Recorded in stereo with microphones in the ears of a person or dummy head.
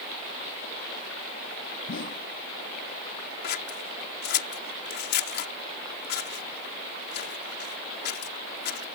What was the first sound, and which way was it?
A whoosh, 55° left (ahead or behind).